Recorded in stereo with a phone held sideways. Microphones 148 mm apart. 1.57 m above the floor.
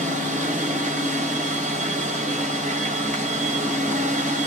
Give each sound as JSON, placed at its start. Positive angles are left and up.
{"t": 0.0, "sound": "a machine running", "side_deg": -55, "distance_m": 2.5}